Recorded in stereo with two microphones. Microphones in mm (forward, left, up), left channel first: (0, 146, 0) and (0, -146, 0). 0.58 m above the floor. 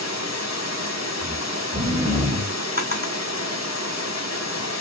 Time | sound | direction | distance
0.0 | running water | 65° left (ahead or behind) | 1.2 m
1.2 | snoring | 20° right (ahead or behind) | 0.9 m
2.8 | a drawer | 30° right (ahead or behind) | 1.7 m